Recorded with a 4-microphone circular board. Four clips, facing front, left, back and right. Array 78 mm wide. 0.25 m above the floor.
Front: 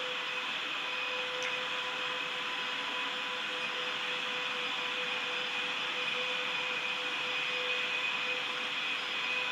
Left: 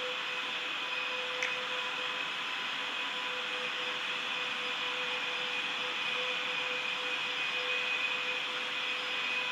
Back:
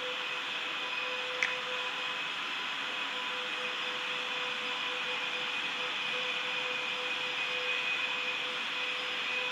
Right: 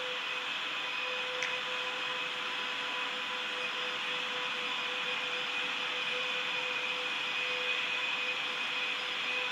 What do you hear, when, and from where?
1.4 s a finger snap: 175° left, 3 m